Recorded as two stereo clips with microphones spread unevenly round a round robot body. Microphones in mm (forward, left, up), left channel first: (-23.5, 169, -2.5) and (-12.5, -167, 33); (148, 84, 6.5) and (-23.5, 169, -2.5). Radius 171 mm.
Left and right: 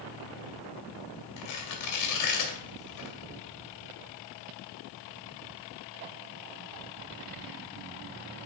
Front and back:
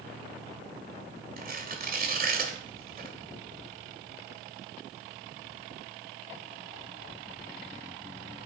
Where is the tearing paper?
115° left, 2.0 m.